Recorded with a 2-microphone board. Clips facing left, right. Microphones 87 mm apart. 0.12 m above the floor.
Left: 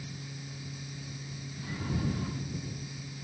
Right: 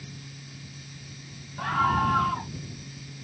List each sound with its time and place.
1.6 s a scream: 80° right